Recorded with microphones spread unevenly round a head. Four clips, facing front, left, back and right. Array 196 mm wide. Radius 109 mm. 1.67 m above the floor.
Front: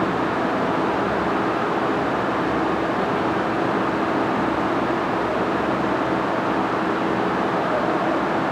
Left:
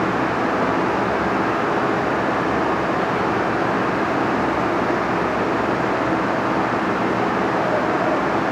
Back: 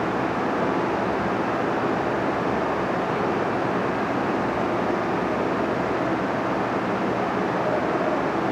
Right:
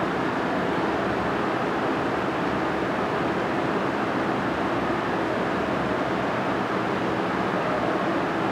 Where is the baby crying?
No baby crying in this recording.